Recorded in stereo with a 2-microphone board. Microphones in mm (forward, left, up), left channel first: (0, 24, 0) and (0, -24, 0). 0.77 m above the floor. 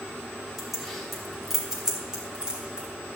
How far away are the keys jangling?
About 3.5 m.